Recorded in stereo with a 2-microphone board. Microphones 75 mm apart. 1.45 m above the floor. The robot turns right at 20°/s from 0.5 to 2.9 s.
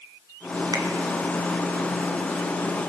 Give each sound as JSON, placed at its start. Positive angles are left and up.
{"t": 0.7, "sound": "a finger snap", "side_deg": -50, "distance_m": 0.7}